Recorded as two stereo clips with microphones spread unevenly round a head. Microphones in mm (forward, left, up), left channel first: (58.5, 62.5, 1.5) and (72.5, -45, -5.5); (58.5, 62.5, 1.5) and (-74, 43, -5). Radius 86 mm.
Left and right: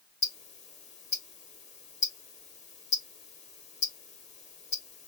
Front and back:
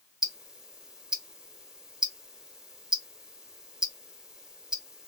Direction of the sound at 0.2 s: 105° left.